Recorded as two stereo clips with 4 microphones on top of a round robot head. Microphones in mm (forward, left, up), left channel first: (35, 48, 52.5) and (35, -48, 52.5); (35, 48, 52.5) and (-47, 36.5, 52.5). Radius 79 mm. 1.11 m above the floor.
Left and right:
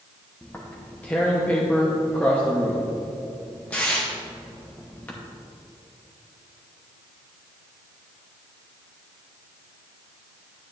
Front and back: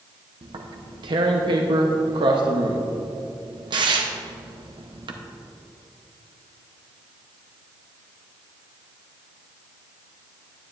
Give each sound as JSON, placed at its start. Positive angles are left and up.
{"t": 0.4, "sound": "tearing paper", "azimuth_deg": 165, "distance_m": 0.8}